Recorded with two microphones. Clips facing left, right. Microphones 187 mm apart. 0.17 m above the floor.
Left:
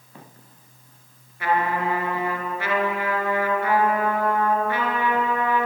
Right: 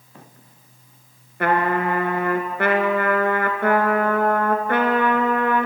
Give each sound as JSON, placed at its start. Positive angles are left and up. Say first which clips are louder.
{"t": 1.4, "sound": "a trumpet", "louder": "right 3 dB", "side_deg": -60, "distance_m": 1.8}